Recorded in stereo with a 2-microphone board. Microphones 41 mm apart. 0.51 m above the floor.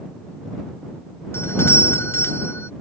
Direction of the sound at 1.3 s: 80° left.